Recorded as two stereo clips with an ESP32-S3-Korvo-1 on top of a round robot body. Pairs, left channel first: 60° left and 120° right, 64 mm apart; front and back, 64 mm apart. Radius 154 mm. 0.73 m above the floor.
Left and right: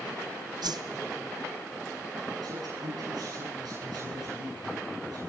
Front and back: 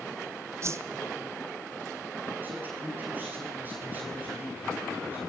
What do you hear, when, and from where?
0.6 s a whoosh: 130° right, 0.7 m
2.4 s a man speaking: 120° right, 10 m